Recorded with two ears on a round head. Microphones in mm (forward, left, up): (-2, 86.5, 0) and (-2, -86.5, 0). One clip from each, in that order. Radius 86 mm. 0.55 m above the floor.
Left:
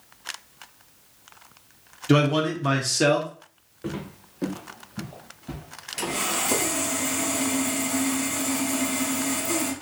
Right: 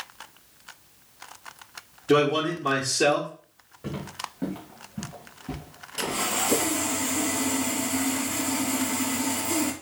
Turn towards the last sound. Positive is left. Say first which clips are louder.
# even
turn(degrees=15)  # may be behind; listen again after turning